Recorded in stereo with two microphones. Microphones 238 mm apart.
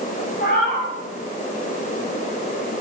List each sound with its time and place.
0.4 s a cat meowing: 45° left (ahead or behind), 4 m